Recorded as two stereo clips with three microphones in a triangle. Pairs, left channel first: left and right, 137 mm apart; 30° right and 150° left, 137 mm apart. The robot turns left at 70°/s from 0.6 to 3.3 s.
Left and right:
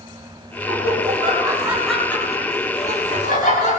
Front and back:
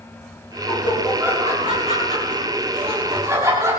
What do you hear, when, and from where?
0.7 s laughter: 95° right, 9 m; by 3.8 s 80° left, 9 m